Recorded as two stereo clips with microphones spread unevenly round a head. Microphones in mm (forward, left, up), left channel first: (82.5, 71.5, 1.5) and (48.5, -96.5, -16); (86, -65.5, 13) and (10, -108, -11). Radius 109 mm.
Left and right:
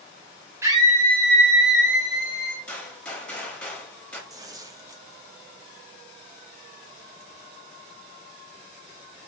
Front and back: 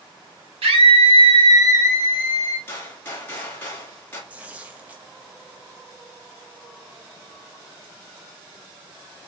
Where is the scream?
Straight behind, 0.7 m; by 2.6 s 75° right, 1.4 m.